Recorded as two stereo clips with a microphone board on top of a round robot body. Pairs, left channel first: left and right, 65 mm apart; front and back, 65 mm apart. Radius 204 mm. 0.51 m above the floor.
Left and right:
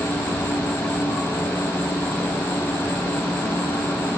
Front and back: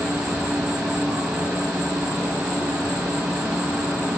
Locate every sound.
0.0 s an insect: 110° left, 1.9 m